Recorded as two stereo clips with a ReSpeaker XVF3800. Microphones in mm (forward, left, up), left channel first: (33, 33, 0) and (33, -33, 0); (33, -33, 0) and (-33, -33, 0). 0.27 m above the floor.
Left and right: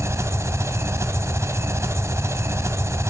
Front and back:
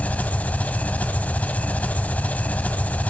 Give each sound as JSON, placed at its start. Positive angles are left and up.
{"t": 0.0, "sound": "an engine running", "azimuth_deg": -60, "distance_m": 1.1}